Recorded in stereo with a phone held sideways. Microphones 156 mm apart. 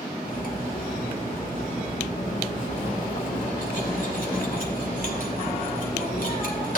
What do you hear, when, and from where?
0.2 s cutlery clinking: 60° left (ahead or behind), 2 m